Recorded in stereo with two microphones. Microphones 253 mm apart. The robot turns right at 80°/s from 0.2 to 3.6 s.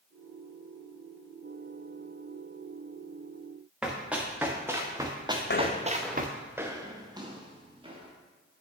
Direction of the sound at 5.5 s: 50° left (ahead or behind).